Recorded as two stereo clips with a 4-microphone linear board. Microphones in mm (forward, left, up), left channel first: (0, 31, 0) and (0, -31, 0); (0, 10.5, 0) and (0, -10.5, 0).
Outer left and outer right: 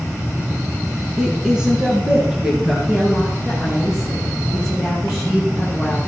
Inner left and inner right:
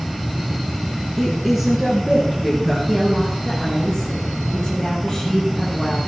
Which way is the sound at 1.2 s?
10° right (ahead or behind).